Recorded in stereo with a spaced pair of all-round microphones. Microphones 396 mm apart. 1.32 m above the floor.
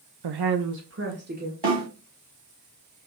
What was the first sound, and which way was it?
A woman speaking, 80° right.